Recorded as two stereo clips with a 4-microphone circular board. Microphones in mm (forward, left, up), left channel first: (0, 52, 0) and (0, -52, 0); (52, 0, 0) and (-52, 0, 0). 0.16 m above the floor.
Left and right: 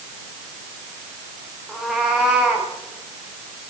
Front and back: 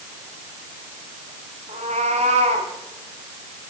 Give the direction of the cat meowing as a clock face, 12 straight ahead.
6 o'clock.